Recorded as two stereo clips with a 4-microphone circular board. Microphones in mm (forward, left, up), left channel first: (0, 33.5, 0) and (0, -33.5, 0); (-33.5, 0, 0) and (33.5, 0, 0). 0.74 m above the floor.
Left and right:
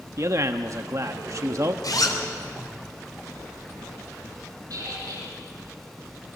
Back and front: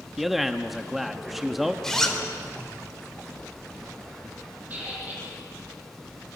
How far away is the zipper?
About 3 m.